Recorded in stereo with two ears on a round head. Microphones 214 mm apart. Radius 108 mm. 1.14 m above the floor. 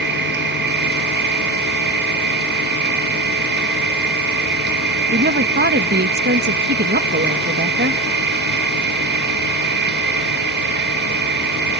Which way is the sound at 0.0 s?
50° right (ahead or behind).